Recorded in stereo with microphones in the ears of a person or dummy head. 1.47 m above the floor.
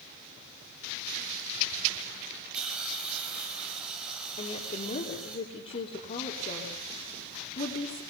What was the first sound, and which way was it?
A hiss, 5° right (ahead or behind).